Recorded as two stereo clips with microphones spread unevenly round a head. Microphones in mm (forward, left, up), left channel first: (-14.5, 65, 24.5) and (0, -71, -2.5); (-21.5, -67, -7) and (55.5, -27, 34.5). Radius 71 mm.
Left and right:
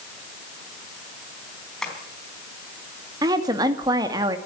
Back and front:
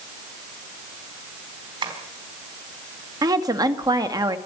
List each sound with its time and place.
1.8 s tapping: 10° left, 4 m
3.2 s a woman speaking: 20° right, 2 m